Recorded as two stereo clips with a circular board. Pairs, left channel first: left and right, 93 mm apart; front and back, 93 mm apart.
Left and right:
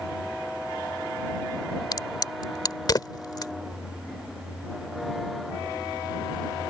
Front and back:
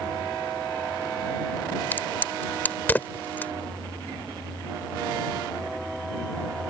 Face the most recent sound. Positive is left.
turn(degrees=65)